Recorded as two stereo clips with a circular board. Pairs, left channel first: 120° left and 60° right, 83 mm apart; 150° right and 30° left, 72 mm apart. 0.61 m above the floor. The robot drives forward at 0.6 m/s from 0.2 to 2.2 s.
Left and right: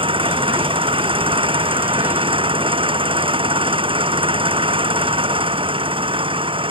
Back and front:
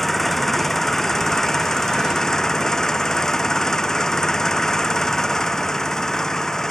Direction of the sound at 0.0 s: 60° right.